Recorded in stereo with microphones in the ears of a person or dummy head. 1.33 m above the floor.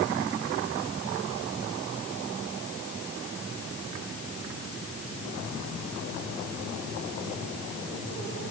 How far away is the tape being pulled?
No tape being pulled in this recording.